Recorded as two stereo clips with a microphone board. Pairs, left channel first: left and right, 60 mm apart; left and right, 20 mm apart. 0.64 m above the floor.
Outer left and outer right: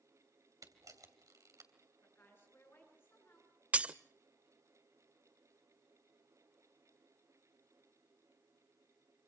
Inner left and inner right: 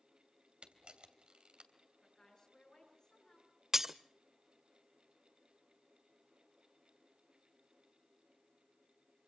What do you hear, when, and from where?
0.6 s a camera shutter: 70° right (ahead or behind), 3 m
2.0 s a woman speaking: 35° left (ahead or behind), 9.5 m
3.7 s breaking glass: 20° right (ahead or behind), 0.5 m